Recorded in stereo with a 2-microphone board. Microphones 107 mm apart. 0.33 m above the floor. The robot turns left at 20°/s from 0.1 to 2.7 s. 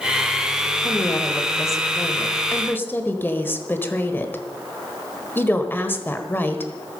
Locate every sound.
0.8 s a woman speaking: 70° left, 1.2 m; by 6.7 s 35° left, 1.2 m